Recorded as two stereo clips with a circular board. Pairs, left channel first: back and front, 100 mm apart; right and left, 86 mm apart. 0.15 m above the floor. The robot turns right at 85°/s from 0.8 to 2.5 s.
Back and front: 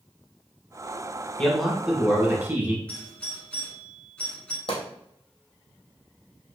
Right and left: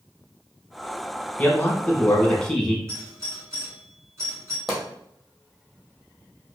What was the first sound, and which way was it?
A man speaking, 115° right.